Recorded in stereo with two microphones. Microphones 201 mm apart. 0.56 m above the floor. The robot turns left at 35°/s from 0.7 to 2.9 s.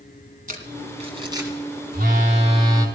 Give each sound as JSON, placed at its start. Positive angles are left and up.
{"t": 0.5, "sound": "crumpling", "side_deg": -45, "distance_m": 2.0}
{"t": 1.9, "sound": "a phone buzzing", "azimuth_deg": -125, "distance_m": 2.5}